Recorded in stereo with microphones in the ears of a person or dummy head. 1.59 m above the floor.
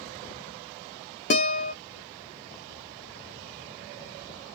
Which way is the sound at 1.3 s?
35° left (ahead or behind).